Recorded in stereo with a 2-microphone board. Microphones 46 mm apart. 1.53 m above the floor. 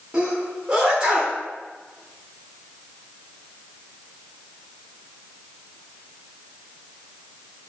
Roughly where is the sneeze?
Right.